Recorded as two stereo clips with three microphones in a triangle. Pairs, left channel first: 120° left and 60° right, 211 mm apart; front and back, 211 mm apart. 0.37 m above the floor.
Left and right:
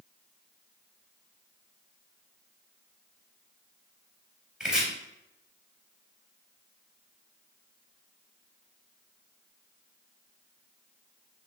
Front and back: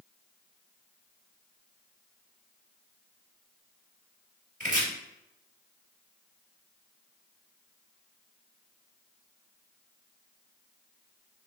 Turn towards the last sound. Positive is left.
turn(degrees=-145)